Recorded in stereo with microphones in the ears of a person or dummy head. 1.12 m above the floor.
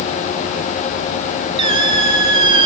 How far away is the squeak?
About 1.4 m.